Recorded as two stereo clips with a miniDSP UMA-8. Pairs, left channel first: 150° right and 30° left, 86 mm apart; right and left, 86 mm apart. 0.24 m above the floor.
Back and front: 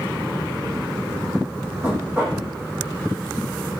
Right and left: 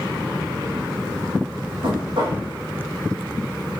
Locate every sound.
1.8 s knocking: 95° left, 8.5 m